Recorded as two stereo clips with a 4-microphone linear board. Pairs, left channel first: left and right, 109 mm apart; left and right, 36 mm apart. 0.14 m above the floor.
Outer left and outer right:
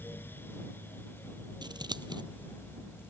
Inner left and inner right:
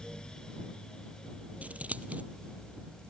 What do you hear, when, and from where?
1.6 s scissors: 45° right (ahead or behind)